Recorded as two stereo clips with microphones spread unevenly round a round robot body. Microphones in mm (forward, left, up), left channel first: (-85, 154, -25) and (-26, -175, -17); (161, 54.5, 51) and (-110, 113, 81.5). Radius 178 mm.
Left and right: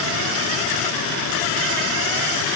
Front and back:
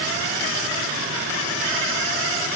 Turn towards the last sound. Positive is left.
No sound to turn to.